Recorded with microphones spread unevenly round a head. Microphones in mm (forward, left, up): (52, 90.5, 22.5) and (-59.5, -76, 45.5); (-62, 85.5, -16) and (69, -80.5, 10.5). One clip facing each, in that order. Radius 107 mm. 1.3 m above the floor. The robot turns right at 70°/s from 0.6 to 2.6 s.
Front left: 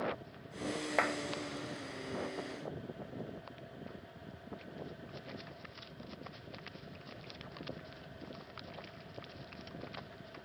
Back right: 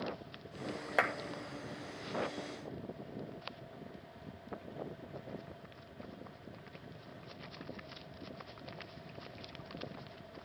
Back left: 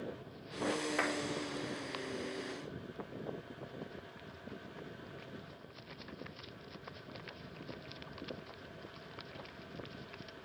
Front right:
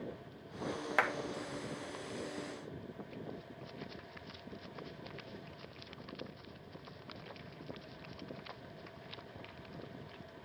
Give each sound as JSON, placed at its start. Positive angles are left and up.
{"t": 1.0, "sound": "a clap", "azimuth_deg": -40, "distance_m": 2.5}